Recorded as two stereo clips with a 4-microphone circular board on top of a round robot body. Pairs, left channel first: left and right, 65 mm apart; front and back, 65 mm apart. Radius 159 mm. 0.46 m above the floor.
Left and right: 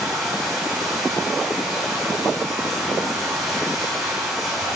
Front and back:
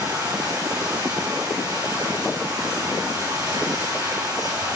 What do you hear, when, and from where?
0.0 s running water: straight behind, 5 m